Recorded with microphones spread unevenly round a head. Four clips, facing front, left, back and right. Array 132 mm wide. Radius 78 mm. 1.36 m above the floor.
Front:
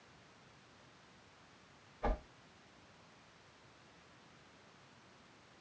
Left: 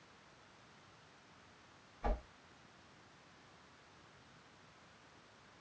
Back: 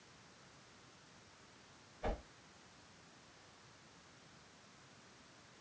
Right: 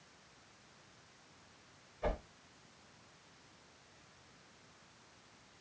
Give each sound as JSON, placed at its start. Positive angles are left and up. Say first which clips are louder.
{"t": 2.0, "sound": "a whoosh", "louder": "right 3 dB, front 3 dB", "azimuth_deg": -75, "distance_m": 1.9}